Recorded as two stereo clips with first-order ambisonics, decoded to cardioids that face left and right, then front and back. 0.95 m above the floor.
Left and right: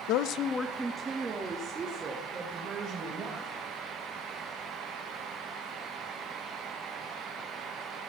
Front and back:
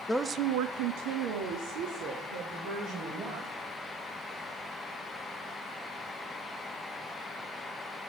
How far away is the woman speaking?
About 0.6 m.